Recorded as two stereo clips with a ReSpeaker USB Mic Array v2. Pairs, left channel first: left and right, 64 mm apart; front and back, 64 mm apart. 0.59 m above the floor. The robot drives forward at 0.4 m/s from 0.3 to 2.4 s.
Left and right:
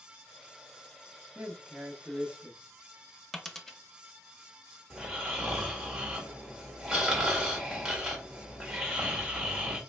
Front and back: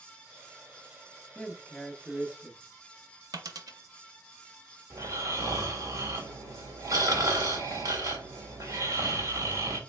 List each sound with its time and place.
1.4 s a man speaking: 50° right, 0.7 m; by 2.6 s 130° right, 0.7 m
3.3 s a dropped coin: 175° left, 0.5 m
4.9 s snoring: 175° right, 1.8 m